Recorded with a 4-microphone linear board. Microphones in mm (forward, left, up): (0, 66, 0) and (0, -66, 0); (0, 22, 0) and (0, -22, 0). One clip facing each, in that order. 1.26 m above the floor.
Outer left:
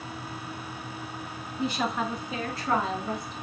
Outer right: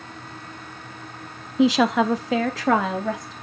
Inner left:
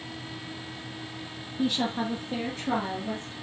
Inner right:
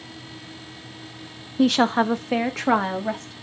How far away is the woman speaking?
About 0.9 m.